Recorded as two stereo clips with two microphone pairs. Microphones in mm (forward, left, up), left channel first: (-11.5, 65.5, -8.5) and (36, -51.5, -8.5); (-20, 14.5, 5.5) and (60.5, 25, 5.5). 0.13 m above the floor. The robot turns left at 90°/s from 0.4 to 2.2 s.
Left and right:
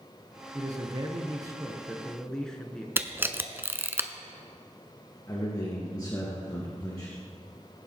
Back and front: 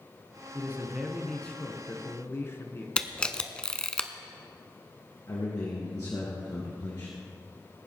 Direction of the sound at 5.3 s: 165° left.